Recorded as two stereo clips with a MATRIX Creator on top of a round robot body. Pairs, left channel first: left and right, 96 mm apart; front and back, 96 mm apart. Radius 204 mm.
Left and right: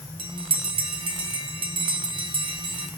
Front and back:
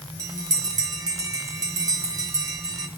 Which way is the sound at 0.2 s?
125° right.